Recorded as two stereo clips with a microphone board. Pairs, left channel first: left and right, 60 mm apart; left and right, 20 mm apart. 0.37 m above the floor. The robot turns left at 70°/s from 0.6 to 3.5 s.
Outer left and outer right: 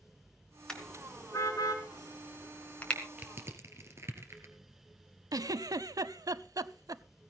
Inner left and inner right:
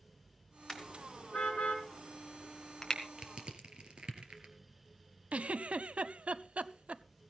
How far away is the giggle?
About 0.6 m.